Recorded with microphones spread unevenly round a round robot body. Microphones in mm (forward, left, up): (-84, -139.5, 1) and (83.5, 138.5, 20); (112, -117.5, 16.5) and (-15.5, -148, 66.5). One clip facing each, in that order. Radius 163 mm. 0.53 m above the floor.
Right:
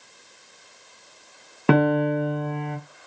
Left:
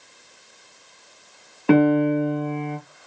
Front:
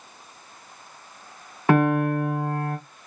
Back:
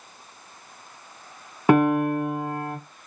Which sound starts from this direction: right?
A piano, at 1.7 s.